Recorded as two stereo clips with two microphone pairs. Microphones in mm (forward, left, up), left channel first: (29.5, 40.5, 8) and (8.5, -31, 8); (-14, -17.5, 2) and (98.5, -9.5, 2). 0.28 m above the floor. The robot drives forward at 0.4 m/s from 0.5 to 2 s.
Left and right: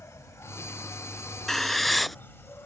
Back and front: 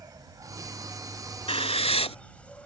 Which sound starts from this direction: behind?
Writing, at 1.5 s.